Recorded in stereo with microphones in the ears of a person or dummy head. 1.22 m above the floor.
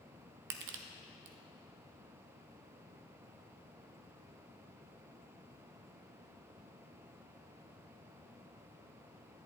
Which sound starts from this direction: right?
Crushing, at 0.5 s.